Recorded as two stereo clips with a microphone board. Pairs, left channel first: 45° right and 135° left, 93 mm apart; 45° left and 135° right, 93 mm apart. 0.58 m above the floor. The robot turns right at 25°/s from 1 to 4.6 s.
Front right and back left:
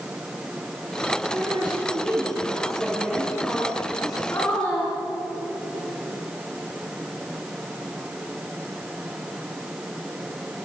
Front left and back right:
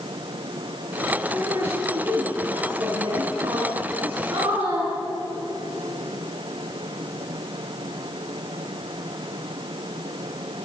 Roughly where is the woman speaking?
Behind.